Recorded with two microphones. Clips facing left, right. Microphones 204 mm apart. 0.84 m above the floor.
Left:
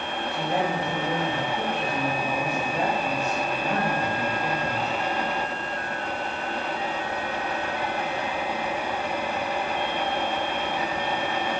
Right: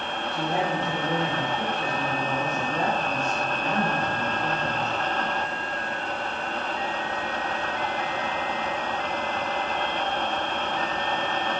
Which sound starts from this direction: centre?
A woman speaking, at 0.3 s.